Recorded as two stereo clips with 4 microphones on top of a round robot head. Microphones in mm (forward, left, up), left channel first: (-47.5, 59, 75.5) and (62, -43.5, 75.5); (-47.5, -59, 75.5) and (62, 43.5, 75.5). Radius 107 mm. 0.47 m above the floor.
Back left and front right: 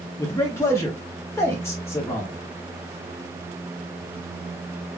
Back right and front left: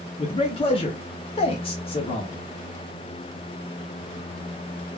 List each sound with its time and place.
0.2 s a man speaking: 160° right, 0.8 m